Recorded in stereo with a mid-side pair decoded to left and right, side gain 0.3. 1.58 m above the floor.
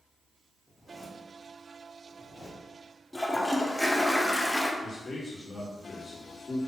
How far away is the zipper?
About 1.8 m.